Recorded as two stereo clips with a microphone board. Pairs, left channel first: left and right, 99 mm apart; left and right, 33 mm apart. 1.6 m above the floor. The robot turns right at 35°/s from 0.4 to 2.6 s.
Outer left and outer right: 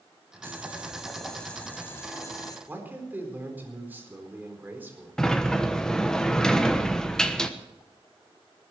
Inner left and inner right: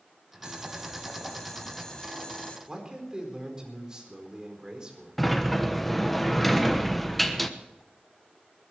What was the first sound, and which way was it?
Boiling, 25° right.